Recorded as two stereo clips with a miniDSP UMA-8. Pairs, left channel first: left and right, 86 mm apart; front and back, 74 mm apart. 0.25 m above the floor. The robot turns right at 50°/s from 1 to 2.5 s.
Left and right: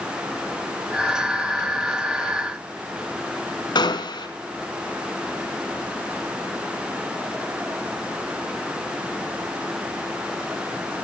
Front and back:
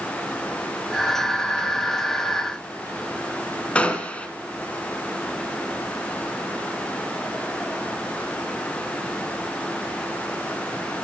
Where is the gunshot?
70° left, 1.0 m.